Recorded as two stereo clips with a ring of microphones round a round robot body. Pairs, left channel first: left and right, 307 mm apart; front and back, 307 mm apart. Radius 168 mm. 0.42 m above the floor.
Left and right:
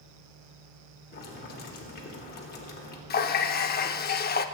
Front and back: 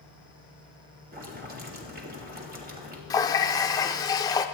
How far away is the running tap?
About 0.6 m.